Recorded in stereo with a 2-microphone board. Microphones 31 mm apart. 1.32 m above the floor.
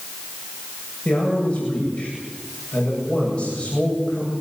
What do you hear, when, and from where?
1.1 s a man speaking: 40° left (ahead or behind), 8 m